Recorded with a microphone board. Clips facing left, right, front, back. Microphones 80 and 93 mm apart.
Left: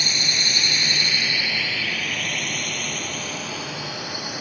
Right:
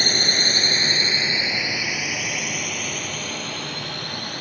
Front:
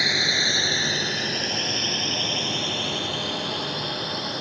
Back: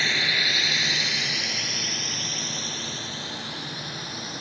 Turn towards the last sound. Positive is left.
turn(degrees=10)